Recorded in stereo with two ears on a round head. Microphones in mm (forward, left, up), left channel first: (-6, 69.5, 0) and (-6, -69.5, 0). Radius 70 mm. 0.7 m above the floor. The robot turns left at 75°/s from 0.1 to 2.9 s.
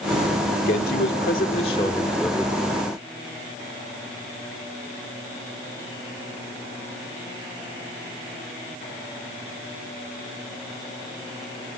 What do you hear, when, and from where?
0.7 s a man speaking: 115° left, 1.9 m; by 2.6 s 30° right, 1.9 m